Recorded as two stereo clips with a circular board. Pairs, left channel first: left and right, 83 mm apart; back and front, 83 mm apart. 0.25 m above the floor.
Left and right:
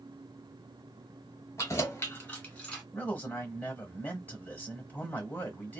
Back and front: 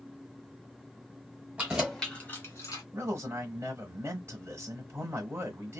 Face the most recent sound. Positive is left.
turn(degrees=35)